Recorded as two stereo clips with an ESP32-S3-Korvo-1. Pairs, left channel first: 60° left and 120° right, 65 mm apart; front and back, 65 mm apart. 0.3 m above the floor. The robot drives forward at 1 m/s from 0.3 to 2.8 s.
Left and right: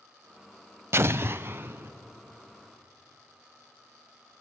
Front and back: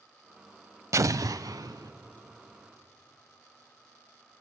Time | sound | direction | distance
0.9 | an explosion | 160° right | 0.5 m